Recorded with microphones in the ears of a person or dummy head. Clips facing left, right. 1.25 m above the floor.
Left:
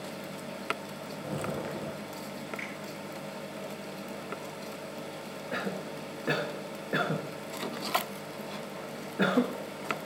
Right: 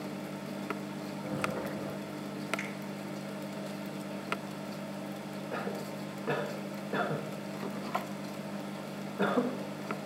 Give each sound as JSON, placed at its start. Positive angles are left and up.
{"t": 1.2, "sound": "footsteps", "side_deg": 40, "distance_m": 1.6}
{"t": 2.6, "sound": "a finger snap", "side_deg": -30, "distance_m": 3.0}
{"t": 5.5, "sound": "a cough", "side_deg": 20, "distance_m": 0.7}